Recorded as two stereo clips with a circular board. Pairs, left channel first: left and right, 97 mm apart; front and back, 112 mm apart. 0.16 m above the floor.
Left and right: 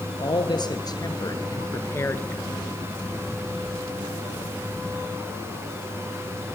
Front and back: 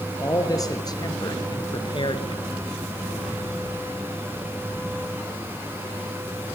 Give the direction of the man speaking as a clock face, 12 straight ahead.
10 o'clock.